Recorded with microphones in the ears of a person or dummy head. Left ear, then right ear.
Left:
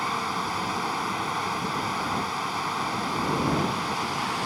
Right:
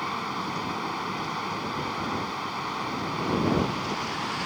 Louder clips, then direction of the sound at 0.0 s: Left 3 dB; 30° left (ahead or behind).